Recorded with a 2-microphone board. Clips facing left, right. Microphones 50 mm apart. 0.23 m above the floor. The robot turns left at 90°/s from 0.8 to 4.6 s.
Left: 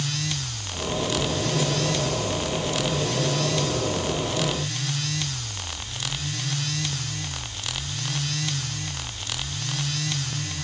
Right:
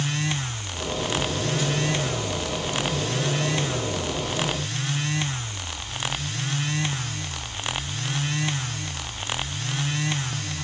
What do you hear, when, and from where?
1.2 s ticking: 5° right (ahead or behind), 0.9 m; by 1.2 s 10° right (ahead or behind), 0.9 m